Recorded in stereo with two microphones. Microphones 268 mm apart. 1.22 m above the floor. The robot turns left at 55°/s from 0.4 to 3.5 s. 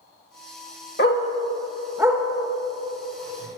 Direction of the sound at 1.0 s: 40° left (ahead or behind).